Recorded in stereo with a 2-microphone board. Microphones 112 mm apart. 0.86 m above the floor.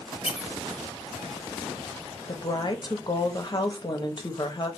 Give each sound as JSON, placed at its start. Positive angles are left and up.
{"t": 0.2, "sound": "a squeak", "side_deg": 60, "distance_m": 0.5}
{"t": 2.3, "sound": "a woman speaking", "side_deg": 40, "distance_m": 0.7}